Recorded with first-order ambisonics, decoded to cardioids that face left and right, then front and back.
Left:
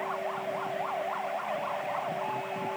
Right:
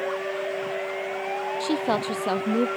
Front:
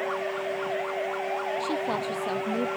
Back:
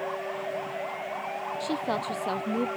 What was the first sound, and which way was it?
A woman speaking, 95° right.